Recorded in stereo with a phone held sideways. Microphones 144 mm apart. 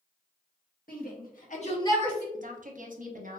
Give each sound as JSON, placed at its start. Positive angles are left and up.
{"t": 0.9, "sound": "a shout", "side_deg": 75, "distance_m": 1.5}
{"t": 2.3, "sound": "a woman speaking", "side_deg": -65, "distance_m": 0.7}